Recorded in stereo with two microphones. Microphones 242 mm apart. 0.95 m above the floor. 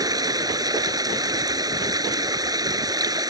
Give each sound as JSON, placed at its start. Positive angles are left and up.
{"t": 0.0, "sound": "running water", "side_deg": -15}